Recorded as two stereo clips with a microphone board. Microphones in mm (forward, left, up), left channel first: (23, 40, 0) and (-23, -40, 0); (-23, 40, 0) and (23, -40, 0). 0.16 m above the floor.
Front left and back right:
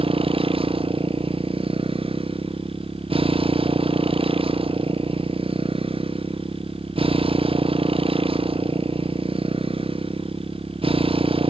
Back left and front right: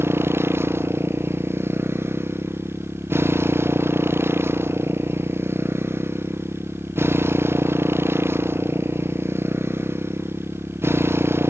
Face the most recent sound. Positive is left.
turn(degrees=-125)